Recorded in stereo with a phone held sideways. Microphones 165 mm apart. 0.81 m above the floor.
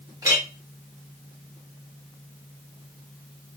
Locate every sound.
0.2 s a clink: 20° right (ahead or behind), 0.8 m